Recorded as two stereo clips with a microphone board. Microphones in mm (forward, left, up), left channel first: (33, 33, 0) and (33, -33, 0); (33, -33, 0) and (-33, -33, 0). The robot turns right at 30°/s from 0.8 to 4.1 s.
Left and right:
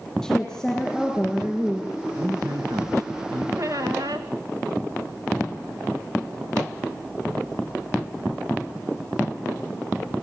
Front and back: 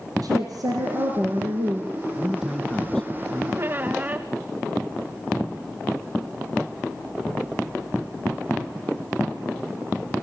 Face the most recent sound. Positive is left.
turn(degrees=-115)